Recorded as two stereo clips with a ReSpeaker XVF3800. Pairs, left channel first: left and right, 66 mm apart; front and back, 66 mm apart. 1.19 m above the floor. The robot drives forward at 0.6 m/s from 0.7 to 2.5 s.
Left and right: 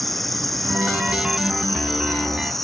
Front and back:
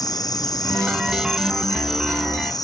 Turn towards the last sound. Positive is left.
turn(degrees=5)